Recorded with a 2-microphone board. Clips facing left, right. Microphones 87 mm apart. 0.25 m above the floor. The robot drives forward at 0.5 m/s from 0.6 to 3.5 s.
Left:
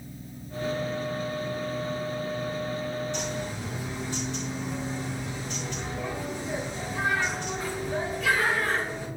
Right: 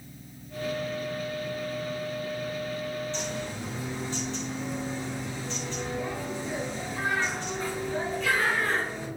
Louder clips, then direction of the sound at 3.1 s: Left 1 dB; 15° left (ahead or behind).